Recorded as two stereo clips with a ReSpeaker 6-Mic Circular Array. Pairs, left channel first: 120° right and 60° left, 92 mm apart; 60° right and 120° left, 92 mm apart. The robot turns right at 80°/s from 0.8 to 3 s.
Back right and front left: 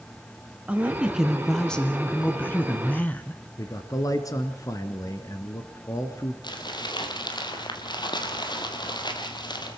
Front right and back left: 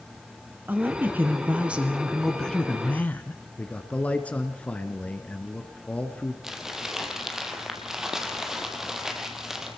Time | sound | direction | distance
0.7 | a woman speaking | 100° left | 1.2 m
3.6 | a man speaking | 125° right | 1.4 m
6.4 | crumpling | 155° right | 2 m